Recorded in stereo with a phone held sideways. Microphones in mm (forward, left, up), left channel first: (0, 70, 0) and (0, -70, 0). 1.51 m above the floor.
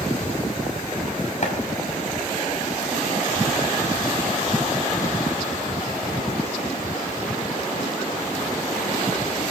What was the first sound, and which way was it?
Chopping, 55° left (ahead or behind).